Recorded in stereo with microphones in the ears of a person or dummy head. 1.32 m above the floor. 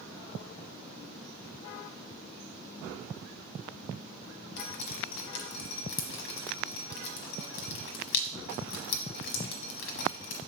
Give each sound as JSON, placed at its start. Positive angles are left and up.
{"t": 4.6, "sound": "dripping", "side_deg": 55, "distance_m": 1.0}